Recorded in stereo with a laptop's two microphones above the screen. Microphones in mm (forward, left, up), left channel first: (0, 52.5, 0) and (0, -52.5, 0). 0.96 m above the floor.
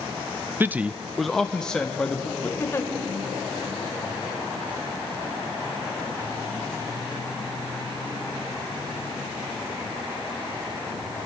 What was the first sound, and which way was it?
A man speaking, 20° right (ahead or behind).